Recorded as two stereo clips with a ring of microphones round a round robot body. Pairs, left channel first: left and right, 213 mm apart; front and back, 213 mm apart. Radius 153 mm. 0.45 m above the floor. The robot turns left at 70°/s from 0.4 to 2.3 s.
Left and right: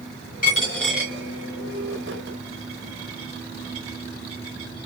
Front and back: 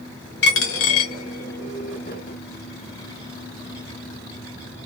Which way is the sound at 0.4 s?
35° left.